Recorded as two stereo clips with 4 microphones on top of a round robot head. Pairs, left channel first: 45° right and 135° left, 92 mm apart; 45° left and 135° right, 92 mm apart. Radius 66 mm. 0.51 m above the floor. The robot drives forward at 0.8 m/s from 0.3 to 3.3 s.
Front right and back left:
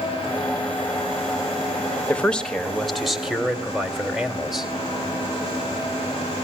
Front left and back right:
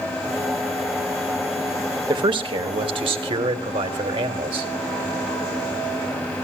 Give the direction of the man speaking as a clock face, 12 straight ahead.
4 o'clock.